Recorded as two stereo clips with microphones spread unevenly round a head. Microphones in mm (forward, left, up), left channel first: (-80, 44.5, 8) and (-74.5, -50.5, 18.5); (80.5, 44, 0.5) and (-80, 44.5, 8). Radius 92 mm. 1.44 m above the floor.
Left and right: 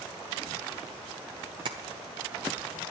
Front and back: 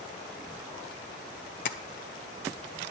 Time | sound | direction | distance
1.6 | tapping | 35° right | 0.6 m